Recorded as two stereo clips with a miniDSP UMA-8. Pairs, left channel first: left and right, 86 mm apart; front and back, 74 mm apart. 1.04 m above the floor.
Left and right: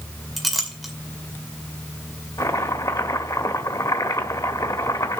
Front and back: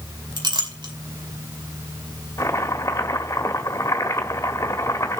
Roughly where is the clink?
Behind.